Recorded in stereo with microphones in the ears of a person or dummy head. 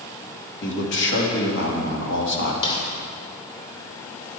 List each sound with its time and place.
0.6 s a man speaking: 70° left (ahead or behind), 2.5 m
2.6 s a snare drum: 30° left (ahead or behind), 2 m